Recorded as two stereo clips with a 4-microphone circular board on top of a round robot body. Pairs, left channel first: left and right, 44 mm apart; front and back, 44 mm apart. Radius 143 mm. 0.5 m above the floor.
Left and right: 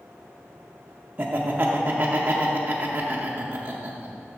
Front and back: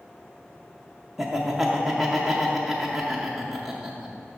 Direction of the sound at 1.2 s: 95° right.